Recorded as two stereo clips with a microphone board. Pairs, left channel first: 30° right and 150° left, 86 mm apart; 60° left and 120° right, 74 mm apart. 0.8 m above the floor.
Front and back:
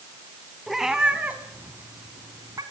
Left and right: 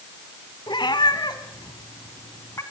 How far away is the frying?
I don't hear frying.